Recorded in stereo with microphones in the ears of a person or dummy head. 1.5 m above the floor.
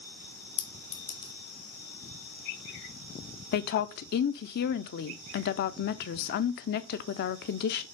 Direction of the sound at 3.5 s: 45° left (ahead or behind).